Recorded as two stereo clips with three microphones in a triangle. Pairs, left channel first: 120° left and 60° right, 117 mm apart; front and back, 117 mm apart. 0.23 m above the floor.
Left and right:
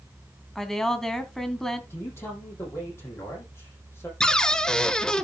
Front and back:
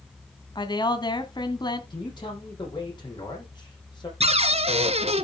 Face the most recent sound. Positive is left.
turn(degrees=-155)